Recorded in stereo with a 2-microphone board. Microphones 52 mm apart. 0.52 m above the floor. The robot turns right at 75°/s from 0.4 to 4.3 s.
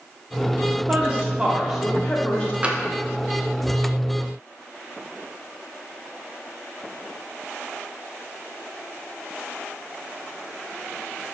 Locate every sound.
0.9 s a woman speaking: 30° right (ahead or behind), 0.7 m; by 2.5 s 20° left (ahead or behind), 0.7 m
2.6 s tapping: 25° right (ahead or behind), 0.5 m; by 2.8 s 15° right (ahead or behind), 0.5 m